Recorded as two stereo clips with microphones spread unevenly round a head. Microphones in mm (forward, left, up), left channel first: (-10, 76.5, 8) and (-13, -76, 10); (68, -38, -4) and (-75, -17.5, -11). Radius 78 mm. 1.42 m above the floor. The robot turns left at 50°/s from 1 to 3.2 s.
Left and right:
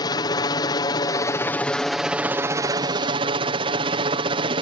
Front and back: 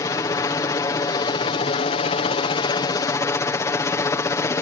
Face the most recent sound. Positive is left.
turn(degrees=-65)